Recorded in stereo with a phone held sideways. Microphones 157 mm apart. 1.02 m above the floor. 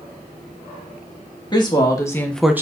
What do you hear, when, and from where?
1.5 s a woman speaking: 30° left (ahead or behind), 2 m; by 2.6 s 15° right (ahead or behind), 0.7 m